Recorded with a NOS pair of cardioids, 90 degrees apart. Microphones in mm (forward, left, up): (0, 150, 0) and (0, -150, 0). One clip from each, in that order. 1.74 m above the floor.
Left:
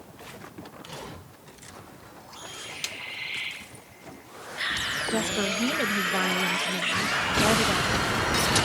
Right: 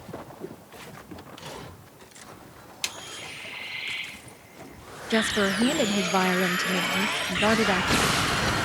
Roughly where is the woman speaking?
Ahead right.